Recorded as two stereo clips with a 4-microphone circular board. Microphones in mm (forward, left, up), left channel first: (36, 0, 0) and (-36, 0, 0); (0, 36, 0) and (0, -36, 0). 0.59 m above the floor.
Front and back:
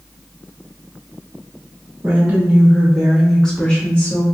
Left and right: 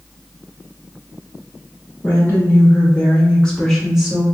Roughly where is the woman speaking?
Left.